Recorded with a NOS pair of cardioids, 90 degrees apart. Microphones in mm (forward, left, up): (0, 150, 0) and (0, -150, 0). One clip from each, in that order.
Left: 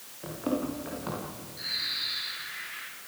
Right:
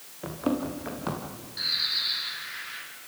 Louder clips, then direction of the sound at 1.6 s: Right 5 dB; 65° right.